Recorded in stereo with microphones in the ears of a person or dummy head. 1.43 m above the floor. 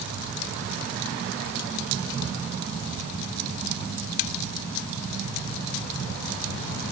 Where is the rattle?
No rattle in this recording.